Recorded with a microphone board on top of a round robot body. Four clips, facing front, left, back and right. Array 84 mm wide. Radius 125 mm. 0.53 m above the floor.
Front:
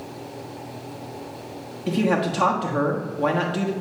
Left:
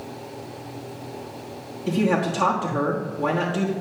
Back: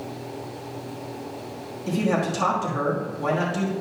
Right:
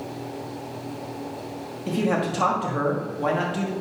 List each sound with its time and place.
1.9 s a man speaking: 10° right, 1.5 m